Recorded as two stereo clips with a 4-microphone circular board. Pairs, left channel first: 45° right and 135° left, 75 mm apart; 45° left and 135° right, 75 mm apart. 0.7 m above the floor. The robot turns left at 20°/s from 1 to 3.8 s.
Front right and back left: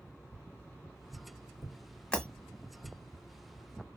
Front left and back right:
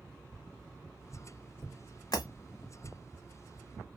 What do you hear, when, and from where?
0.3 s tapping: 10° left, 1.6 m; by 3.0 s 30° right, 1.6 m
2.1 s breaking glass: 30° left, 1.1 m